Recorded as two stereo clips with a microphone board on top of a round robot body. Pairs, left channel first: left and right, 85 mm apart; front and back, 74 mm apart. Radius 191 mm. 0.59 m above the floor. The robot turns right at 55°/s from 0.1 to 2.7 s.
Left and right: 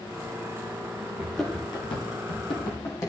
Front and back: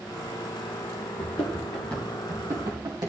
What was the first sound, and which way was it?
Running footsteps, 25° right.